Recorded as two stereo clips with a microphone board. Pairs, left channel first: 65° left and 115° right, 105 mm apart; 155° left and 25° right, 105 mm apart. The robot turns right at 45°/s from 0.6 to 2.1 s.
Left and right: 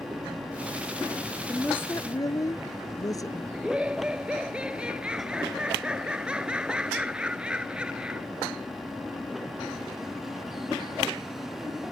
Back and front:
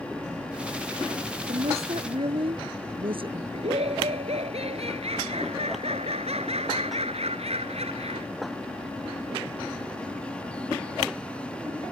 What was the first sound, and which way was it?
A woman speaking, 20° right.